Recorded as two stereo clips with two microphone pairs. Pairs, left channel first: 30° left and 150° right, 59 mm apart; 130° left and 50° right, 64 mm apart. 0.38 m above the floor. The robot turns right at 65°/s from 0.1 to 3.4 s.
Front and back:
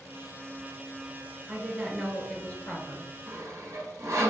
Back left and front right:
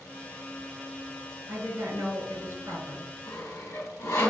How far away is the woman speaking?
About 1.9 m.